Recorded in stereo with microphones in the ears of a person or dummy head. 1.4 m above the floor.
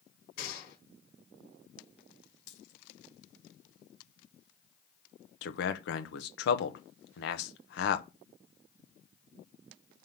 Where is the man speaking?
65° left (ahead or behind), 0.9 m.